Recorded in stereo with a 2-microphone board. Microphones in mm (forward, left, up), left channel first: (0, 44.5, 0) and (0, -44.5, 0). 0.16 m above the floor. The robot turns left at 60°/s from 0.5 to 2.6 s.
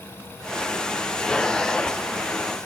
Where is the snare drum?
I don't hear a snare drum.